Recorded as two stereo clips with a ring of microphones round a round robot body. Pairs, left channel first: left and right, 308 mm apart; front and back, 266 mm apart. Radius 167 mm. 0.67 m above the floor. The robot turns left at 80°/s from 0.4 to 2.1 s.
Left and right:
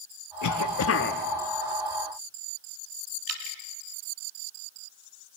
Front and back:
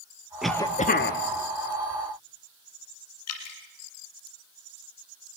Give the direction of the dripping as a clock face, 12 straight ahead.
1 o'clock.